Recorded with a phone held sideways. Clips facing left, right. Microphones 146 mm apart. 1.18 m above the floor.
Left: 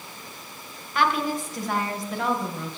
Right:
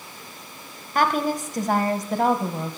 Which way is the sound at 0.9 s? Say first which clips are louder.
Right 2 dB; 45° right (ahead or behind).